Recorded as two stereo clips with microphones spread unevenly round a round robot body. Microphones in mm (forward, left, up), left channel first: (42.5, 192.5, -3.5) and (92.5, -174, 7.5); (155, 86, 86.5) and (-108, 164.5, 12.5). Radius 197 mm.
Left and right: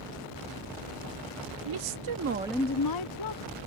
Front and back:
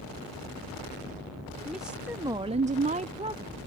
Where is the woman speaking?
110° right; by 3.6 s 95° left.